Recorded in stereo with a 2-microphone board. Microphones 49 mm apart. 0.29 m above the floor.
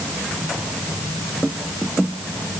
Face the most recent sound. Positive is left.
No sound to turn to.